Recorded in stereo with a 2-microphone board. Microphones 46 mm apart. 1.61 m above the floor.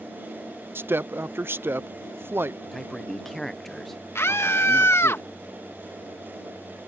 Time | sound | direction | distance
0.8 | a woman speaking | 55° right (ahead or behind) | ?
2.7 | a man speaking | 5° left (ahead or behind) | ?
4.2 | a scream | 65° left (ahead or behind) | ?